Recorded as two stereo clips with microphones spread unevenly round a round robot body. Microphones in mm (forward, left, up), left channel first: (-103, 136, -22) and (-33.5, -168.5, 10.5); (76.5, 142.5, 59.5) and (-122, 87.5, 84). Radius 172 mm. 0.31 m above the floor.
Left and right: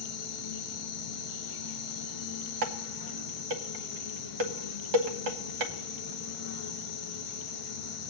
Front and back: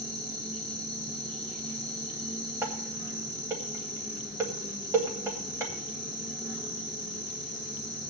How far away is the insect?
About 5.5 m.